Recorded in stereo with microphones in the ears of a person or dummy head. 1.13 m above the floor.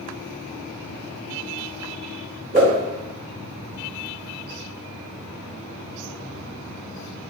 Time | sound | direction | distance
2.5 | a whoosh | 40° right (ahead or behind) | 1.0 m